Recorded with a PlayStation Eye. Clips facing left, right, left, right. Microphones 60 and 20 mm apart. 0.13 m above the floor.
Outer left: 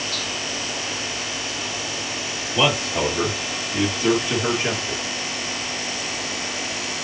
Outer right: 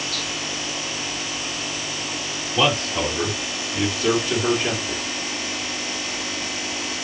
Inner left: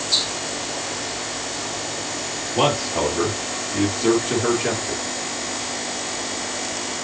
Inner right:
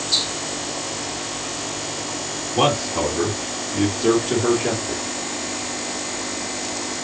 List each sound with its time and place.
2.5 s a man speaking: 15° left (ahead or behind), 2.5 m; by 5.0 s 20° left (ahead or behind), 1.7 m